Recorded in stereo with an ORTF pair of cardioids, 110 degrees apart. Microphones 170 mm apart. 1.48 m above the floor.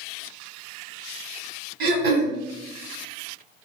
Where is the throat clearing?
65° right, 0.8 m.